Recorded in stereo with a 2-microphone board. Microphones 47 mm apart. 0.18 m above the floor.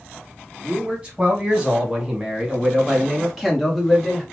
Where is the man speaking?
20° right (ahead or behind), 1.2 m; by 4.2 s centre (ahead or behind), 1.9 m.